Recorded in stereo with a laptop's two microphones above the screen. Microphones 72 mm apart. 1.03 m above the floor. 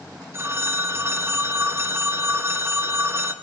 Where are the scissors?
I don't hear scissors.